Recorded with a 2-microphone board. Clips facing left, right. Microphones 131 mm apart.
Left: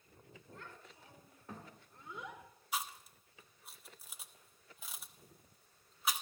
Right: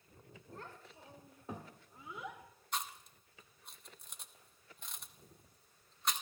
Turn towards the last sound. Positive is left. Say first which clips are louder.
# left 1 dB
turn(degrees=5)  # may be behind; listen again after turning